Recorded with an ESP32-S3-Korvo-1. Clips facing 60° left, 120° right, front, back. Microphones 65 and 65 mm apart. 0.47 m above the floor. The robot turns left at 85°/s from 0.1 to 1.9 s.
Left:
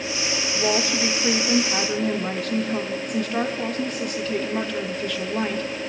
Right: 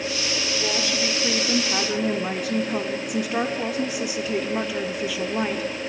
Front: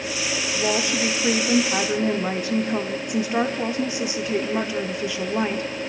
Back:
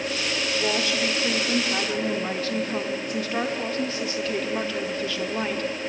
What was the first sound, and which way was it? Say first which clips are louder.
A woman speaking: left 5 dB, front 3 dB; 65° left.